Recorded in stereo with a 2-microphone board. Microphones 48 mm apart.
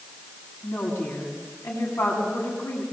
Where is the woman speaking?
70° left (ahead or behind), 8 m.